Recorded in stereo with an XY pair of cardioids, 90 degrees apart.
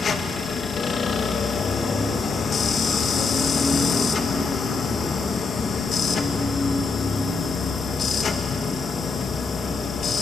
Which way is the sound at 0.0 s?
50° left.